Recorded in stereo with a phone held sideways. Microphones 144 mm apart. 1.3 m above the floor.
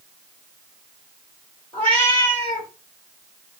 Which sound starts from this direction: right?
A cat meowing, at 1.7 s.